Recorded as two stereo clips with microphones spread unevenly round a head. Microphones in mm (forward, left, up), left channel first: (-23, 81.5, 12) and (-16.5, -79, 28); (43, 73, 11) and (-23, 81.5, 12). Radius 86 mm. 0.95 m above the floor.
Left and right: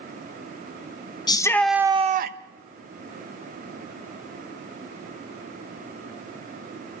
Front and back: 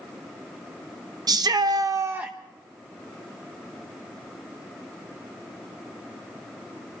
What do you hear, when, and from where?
1.3 s a shout: 155° left, 1.2 m; by 2.4 s 105° right, 0.9 m